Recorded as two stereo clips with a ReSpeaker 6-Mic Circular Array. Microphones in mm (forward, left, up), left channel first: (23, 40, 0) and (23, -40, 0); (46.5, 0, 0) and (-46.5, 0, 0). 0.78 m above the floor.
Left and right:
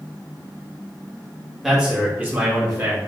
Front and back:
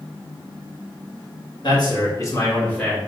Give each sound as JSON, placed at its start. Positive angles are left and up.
{"t": 1.6, "sound": "a man speaking", "azimuth_deg": -5, "distance_m": 1.6}